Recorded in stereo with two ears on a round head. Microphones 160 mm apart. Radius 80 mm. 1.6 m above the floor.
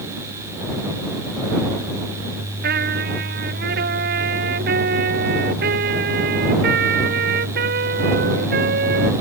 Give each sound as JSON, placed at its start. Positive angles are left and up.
{"t": 2.6, "sound": "a trumpet", "side_deg": -60}